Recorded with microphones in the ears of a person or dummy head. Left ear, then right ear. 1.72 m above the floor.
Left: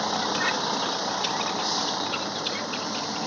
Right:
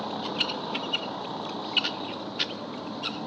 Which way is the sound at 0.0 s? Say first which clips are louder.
Left 5 dB; 70° left (ahead or behind).